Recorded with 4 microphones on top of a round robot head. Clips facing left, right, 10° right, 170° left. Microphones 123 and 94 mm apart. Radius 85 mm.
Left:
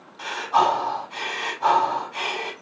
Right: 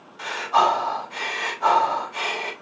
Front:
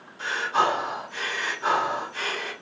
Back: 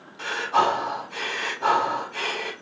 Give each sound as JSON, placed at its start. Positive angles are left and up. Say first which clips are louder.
{"t": 0.2, "sound": "breathing", "louder": "even, back 2 dB", "azimuth_deg": 175, "distance_m": 2.5}